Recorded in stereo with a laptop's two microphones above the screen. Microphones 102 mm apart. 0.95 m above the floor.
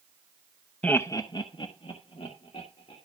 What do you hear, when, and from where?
0.8 s laughter: 10° left (ahead or behind), 0.6 m; by 3.0 s 70° left (ahead or behind), 2.5 m